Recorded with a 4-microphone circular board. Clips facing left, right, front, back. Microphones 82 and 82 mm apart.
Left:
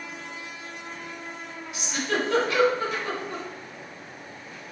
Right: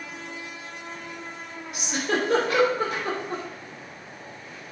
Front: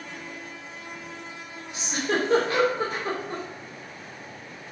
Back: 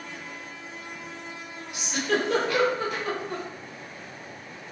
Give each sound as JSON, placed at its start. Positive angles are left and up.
{"t": 1.7, "sound": "a giggle", "azimuth_deg": -55, "distance_m": 3.0}